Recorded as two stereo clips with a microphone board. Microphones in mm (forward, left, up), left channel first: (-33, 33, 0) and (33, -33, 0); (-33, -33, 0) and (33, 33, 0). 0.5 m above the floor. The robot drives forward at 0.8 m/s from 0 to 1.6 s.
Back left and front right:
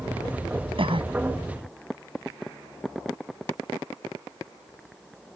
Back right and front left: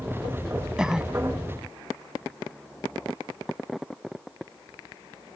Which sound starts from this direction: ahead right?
A cough, at 0.8 s.